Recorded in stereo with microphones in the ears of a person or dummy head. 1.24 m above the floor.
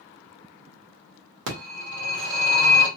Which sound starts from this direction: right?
A phone ringing, at 1.5 s.